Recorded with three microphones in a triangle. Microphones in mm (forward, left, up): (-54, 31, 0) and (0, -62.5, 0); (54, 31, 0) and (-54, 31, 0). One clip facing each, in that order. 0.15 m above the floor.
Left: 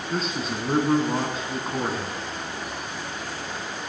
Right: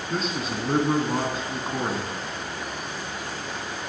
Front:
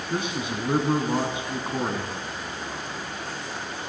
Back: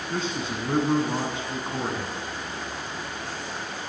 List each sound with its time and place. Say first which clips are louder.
0.1 s a man speaking: even, front 1 dB; 30° left, 1.4 m